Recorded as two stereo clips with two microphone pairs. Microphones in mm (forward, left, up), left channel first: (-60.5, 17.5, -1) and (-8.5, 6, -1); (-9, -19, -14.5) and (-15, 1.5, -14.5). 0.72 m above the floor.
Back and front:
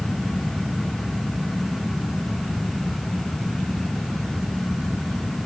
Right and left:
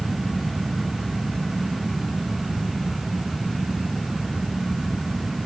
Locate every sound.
Only background noise.